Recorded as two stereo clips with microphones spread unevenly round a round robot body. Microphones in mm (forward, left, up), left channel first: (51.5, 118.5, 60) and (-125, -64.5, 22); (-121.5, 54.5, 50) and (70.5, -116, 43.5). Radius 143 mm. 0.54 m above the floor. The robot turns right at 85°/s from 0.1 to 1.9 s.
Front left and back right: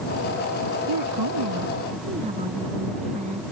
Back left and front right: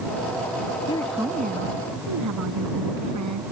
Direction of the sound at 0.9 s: 150° right.